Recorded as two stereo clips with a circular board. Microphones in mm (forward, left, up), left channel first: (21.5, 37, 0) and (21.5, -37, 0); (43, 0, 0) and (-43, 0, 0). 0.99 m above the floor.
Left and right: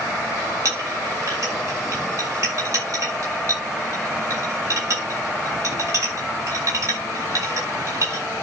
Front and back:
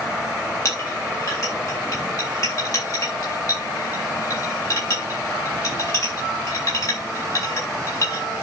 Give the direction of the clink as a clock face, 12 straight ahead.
1 o'clock.